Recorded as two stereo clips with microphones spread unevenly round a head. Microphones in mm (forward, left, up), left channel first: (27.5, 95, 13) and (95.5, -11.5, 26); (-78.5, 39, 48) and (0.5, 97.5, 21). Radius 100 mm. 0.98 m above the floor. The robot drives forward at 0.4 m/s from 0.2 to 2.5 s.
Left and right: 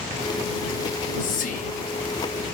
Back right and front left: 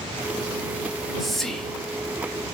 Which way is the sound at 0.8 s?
115° left.